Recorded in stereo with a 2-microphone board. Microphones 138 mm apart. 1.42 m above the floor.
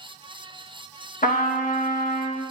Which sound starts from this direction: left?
A trumpet, at 1.2 s.